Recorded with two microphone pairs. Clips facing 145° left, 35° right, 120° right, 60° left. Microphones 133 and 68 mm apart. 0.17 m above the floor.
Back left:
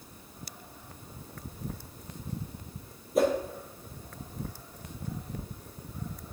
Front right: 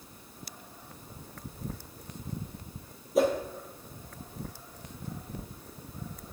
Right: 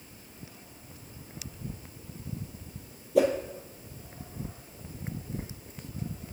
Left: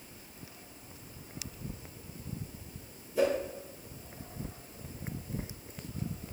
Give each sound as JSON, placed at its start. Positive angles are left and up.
{"t": 3.1, "sound": "a whoosh", "azimuth_deg": -125, "distance_m": 1.7}